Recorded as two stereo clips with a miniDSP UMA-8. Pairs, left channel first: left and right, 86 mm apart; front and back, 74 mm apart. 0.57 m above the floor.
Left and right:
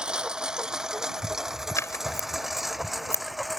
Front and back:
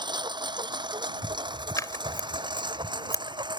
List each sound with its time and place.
0.0 s a lawn mower: 170° right; by 3.6 s straight behind
1.8 s scissors: 40° left